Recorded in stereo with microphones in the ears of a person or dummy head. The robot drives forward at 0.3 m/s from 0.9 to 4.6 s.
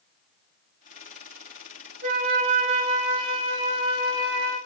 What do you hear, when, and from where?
2.0 s a flute: 40° right (ahead or behind), 0.6 m; by 4.6 s 20° right (ahead or behind), 1.1 m